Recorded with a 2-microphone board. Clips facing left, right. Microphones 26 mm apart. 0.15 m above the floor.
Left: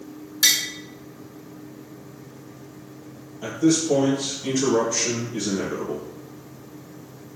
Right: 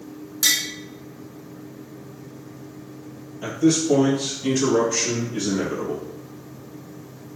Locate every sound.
0.4 s tapping: 40° left (ahead or behind), 0.8 m
3.4 s a man speaking: 25° right (ahead or behind), 1.9 m